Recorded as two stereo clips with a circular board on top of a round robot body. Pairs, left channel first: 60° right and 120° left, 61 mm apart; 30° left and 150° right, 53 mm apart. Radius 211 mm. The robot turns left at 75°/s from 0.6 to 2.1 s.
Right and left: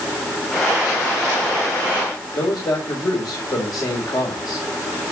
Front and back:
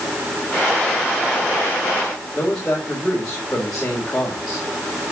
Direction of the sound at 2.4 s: 45° right.